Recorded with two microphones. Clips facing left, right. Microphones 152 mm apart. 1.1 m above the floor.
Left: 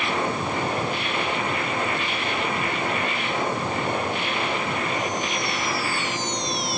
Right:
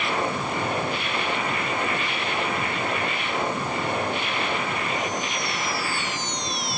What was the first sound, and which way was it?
Only background noise.